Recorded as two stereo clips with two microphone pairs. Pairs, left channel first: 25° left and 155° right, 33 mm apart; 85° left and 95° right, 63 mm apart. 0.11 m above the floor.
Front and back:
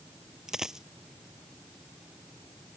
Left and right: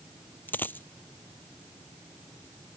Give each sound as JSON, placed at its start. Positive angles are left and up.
{"t": 0.5, "sound": "a dropped coin", "azimuth_deg": 135}